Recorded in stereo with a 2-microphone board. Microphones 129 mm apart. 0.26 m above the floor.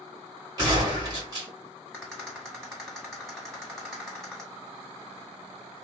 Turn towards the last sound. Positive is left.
turn(degrees=0)  # may be behind; listen again after turning